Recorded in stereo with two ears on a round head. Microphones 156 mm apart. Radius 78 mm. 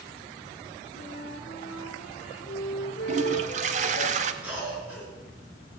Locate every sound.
0.9 s a flute: 40° left (ahead or behind), 2.0 m
3.1 s a toilet flushing: 40° right (ahead or behind), 0.9 m
4.4 s a cough: 10° right (ahead or behind), 8 m